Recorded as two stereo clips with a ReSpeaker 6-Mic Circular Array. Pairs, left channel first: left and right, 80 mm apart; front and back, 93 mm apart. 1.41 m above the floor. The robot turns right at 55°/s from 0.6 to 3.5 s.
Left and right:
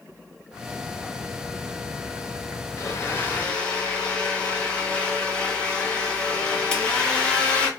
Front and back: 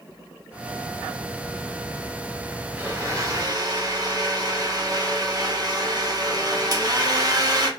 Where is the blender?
120° left, 0.7 m; by 7.7 s 160° left, 0.7 m.